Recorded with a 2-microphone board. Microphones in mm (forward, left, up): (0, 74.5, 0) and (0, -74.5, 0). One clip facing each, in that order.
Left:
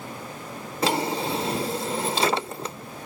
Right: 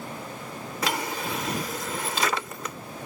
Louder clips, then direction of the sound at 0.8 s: Left 6 dB; 30° left (ahead or behind).